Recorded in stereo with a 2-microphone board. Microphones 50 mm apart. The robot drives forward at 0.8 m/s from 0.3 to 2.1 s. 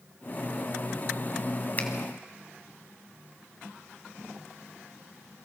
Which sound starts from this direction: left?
A finger snap, at 1.8 s.